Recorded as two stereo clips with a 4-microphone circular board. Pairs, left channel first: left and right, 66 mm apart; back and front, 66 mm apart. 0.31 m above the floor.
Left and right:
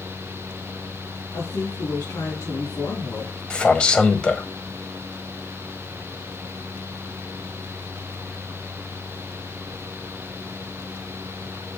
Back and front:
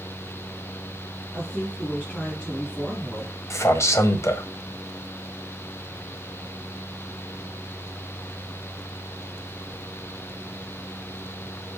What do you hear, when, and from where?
1.3 s a woman speaking: 105° left, 4 m
3.5 s a man speaking: 160° left, 1.3 m